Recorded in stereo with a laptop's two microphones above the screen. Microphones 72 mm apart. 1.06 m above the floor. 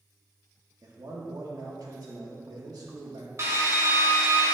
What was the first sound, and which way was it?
A man speaking, 60° right (ahead or behind).